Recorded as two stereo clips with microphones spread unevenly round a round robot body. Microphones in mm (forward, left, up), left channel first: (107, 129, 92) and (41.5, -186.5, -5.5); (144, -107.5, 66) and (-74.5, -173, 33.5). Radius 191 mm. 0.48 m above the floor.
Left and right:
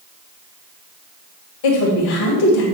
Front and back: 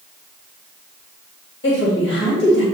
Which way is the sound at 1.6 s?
70° left.